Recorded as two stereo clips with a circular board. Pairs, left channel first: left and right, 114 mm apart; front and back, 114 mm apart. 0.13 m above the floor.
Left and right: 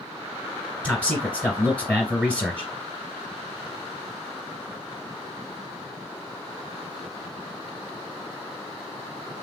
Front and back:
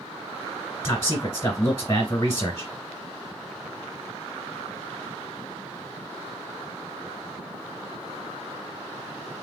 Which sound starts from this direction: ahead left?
A man speaking, at 0.8 s.